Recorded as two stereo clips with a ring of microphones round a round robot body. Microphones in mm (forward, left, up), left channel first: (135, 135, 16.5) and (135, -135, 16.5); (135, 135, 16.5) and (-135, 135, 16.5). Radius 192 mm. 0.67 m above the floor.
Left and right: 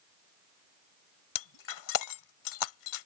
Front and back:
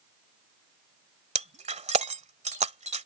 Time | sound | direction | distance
1.4 | breaking glass | 115° left | ?